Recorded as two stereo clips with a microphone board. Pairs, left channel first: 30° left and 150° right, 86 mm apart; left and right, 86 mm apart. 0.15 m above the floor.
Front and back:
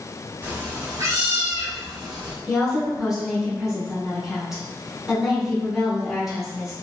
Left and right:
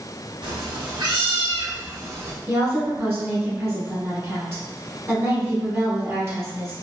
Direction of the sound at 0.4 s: 90° right.